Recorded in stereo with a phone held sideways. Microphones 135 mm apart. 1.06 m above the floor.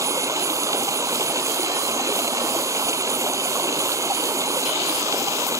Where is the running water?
25° right (ahead or behind).